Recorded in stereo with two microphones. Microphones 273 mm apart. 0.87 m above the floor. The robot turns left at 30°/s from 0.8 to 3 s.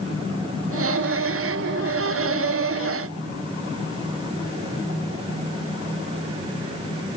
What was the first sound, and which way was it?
Only background noise.